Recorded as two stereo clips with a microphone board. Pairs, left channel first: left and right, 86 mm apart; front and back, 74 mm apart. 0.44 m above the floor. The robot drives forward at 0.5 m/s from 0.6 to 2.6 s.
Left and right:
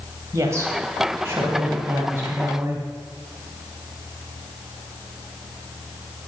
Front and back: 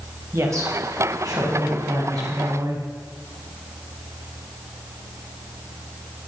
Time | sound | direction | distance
0.3 | a woman speaking | 140° right | 2.5 m